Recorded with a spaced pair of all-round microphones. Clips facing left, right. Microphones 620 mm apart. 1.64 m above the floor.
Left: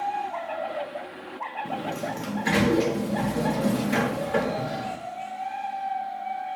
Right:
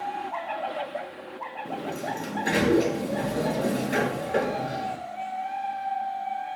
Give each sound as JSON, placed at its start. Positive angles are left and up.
{"t": 1.6, "sound": "a sliding door", "side_deg": 35, "distance_m": 0.7}